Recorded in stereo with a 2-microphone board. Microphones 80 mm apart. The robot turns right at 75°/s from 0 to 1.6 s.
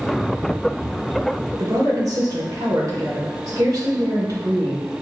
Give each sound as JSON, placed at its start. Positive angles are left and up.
{"t": 1.6, "sound": "a woman speaking", "side_deg": -55, "distance_m": 1.3}